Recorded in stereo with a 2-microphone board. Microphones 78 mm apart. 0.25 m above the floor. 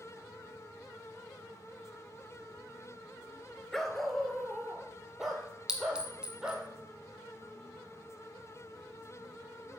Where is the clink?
10° right (ahead or behind), 1.4 m.